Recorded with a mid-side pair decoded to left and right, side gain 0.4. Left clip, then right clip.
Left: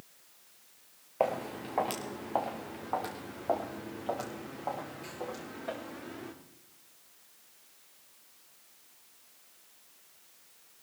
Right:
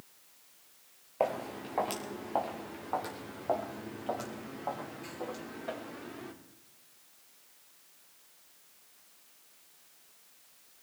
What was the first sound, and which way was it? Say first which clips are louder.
Footsteps: left 1 dB; 10° left.